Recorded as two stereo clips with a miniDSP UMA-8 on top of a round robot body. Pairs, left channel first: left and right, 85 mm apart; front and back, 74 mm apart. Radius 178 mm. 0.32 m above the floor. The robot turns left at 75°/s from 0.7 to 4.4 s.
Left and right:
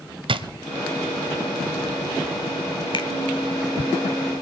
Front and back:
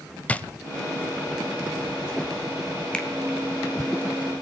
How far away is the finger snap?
About 1.9 m.